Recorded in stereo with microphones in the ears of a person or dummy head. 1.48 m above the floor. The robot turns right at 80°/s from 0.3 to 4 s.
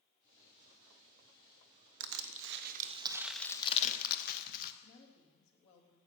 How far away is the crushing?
About 0.9 m.